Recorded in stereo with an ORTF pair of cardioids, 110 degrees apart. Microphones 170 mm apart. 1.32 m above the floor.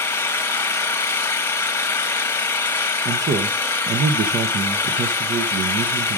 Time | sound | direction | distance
0.0 | an engine running | 15° left | 1.2 m
3.0 | a man speaking | 45° right | 1.0 m